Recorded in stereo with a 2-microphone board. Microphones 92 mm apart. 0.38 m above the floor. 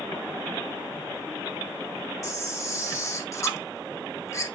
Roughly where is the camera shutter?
Left.